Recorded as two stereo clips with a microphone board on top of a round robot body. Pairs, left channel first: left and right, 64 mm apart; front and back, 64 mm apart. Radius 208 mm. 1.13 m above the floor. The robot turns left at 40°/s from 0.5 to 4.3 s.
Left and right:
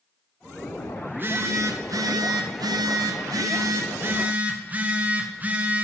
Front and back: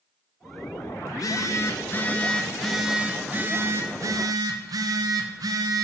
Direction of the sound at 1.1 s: 25° right.